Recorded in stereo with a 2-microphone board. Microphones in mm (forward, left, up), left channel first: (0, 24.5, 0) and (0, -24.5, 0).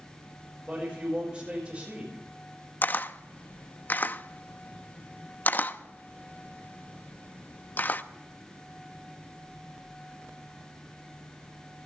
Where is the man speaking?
20° right (ahead or behind), 6 m.